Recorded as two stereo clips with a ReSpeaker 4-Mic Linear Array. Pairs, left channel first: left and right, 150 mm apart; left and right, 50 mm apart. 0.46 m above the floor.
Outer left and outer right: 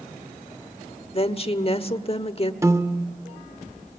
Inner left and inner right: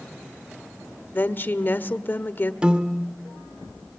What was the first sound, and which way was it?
A woman speaking, 40° left (ahead or behind).